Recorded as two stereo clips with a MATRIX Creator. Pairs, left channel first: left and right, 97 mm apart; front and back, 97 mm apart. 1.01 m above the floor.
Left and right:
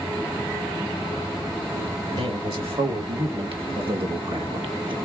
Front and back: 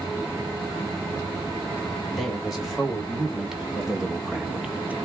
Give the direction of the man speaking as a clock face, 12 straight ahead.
3 o'clock.